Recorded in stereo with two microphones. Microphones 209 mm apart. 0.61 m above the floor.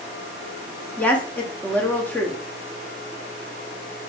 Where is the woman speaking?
10° left (ahead or behind), 0.8 m.